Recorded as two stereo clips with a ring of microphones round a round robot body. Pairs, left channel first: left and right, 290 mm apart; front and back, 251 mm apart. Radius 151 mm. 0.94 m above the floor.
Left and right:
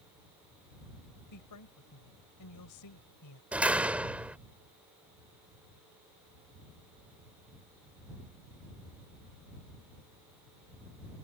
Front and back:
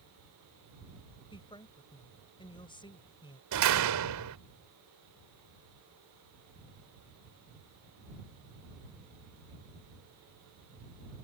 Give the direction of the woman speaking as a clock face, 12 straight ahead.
10 o'clock.